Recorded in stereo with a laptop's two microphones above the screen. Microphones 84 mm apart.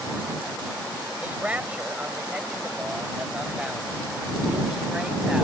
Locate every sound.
1.2 s a man speaking: 15° right (ahead or behind); by 5.4 s 5° right (ahead or behind)